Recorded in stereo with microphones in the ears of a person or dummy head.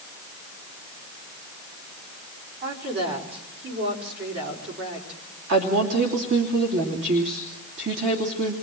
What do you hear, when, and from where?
2.6 s a woman speaking: 55° right (ahead or behind), 5 m
5.5 s a woman speaking: 55° right (ahead or behind), 3 m